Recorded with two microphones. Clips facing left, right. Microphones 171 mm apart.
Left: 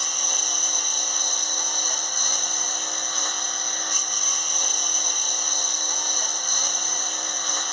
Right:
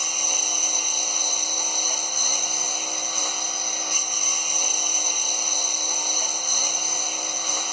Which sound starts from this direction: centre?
A lawn mower, at 0.0 s.